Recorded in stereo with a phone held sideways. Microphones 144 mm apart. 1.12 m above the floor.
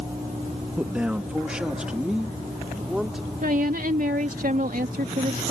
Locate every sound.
0.8 s a man speaking: 10° right (ahead or behind); by 3.3 s 5° right (ahead or behind)
3.4 s a woman speaking: 65° right (ahead or behind)